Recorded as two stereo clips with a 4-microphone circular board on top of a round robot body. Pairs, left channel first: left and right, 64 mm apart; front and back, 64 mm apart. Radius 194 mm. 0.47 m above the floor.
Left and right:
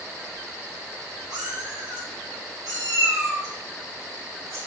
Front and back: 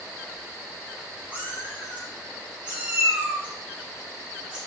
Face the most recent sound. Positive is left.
turn(degrees=-100)